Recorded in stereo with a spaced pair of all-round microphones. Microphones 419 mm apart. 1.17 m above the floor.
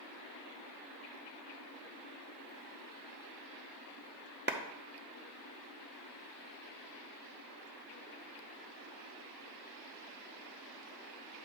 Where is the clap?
25° right (ahead or behind), 0.6 m.